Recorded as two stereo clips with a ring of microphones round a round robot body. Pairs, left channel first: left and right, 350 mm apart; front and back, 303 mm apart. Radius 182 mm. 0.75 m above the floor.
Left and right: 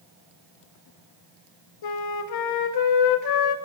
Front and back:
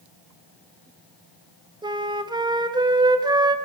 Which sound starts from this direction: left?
A flute, at 1.8 s.